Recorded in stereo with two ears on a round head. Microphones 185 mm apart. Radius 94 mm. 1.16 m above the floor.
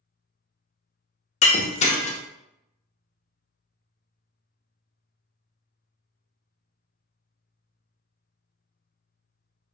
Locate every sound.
1.4 s breaking glass: 35° left (ahead or behind), 0.6 m